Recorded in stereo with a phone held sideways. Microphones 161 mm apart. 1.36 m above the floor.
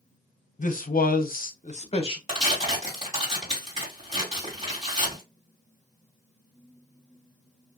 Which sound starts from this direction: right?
Tearing paper, at 2.3 s.